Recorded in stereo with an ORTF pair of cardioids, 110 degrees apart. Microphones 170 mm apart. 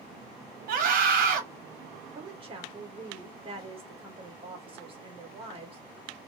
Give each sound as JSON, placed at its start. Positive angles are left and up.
{"t": 0.7, "sound": "a scream", "azimuth_deg": -55, "distance_m": 1.5}
{"t": 2.1, "sound": "a woman speaking", "azimuth_deg": -30, "distance_m": 1.8}